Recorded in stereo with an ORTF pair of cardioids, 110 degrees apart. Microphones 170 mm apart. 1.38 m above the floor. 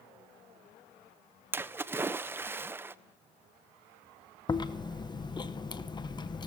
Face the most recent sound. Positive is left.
turn(degrees=25)